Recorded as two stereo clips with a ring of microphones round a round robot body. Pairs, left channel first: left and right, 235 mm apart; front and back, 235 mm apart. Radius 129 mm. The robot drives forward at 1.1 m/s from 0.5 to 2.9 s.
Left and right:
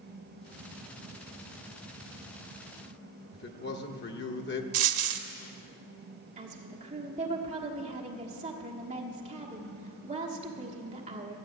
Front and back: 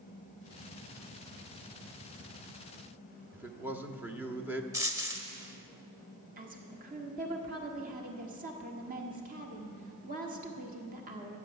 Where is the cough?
No cough in this recording.